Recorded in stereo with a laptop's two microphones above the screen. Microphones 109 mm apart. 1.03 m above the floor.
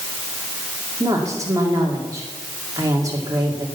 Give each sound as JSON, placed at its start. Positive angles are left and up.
{"t": 1.0, "sound": "a woman speaking", "side_deg": -30, "distance_m": 2.5}